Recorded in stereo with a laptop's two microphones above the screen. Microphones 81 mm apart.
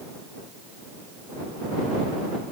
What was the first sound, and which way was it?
Only background noise.